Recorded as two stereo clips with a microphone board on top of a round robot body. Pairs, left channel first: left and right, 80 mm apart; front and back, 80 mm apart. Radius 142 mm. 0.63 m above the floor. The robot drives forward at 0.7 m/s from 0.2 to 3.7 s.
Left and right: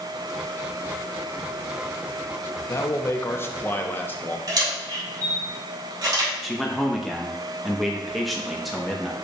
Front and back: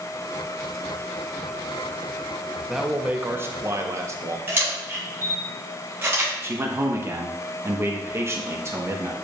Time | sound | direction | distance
2.7 | a man speaking | 90° left | 0.9 m
4.5 | a camera shutter | 120° right | 3 m
6.4 | a man speaking | straight behind | 1.1 m